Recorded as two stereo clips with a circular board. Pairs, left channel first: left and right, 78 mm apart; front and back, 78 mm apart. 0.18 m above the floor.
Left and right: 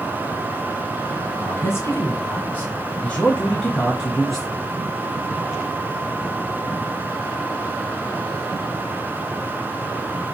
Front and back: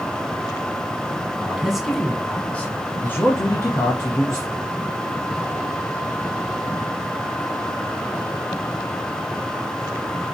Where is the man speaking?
105° left, 1.2 m; by 4.5 s straight ahead, 1.5 m.